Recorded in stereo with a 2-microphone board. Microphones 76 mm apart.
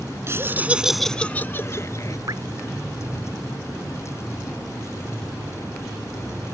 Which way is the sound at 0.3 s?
35° right (ahead or behind).